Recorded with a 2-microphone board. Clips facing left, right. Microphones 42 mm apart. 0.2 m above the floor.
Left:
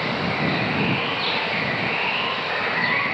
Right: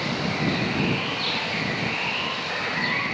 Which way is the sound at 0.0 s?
15° left (ahead or behind).